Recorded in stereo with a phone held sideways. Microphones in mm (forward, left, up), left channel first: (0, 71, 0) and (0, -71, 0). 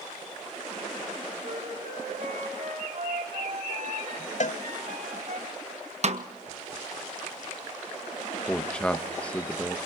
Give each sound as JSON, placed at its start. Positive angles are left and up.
{"t": 1.4, "sound": "a flute", "side_deg": -75, "distance_m": 3.0}
{"t": 4.4, "sound": "a cowbell", "side_deg": 60, "distance_m": 0.7}
{"t": 6.0, "sound": "a snare drum", "side_deg": -50, "distance_m": 1.0}
{"t": 8.5, "sound": "a man speaking", "side_deg": 10, "distance_m": 1.2}